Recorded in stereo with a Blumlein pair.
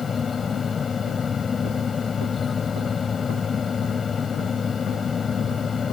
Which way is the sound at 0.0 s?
20° left.